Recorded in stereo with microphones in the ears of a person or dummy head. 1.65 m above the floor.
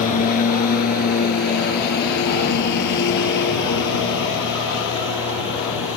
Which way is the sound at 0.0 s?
45° left (ahead or behind).